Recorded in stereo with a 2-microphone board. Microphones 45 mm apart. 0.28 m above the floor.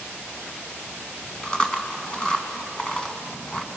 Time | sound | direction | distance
1.4 | chewing | 20° left (ahead or behind) | 1.8 m